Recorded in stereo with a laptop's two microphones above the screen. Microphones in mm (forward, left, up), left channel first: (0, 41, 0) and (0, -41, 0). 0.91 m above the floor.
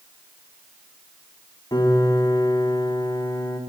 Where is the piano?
50° left (ahead or behind), 3.5 m.